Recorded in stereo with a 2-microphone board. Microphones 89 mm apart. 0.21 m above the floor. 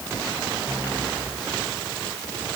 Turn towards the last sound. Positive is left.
No sound to turn to.